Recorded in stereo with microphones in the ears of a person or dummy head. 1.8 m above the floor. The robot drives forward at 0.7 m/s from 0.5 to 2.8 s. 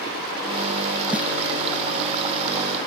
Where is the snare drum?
5° right (ahead or behind).